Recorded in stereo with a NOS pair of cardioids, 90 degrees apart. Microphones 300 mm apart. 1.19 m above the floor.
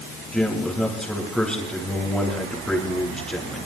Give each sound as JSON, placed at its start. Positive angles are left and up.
{"t": 0.3, "sound": "a man speaking", "azimuth_deg": 5, "distance_m": 8.5}